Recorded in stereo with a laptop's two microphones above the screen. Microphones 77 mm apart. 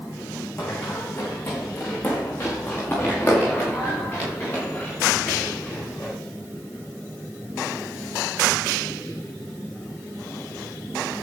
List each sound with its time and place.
0.6 s running footsteps: 25° left (ahead or behind), 4.5 m; by 6.1 s 20° left (ahead or behind), 9.5 m